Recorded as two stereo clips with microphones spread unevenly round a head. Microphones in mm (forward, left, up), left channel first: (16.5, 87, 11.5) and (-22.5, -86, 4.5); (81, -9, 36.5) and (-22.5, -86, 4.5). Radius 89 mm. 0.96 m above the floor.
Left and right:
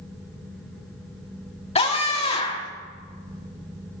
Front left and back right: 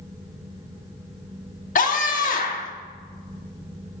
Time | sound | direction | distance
1.8 | a scream | 20° left | 2.5 m